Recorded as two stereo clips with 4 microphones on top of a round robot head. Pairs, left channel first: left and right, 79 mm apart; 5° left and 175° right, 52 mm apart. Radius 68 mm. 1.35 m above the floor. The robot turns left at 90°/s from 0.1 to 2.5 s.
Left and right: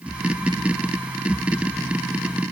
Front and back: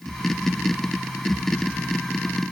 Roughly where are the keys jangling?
No keys jangling in this recording.